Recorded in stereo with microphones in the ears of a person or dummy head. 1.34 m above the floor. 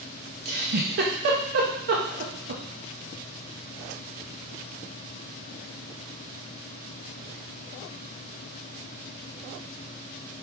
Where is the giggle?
45° right (ahead or behind), 0.7 m.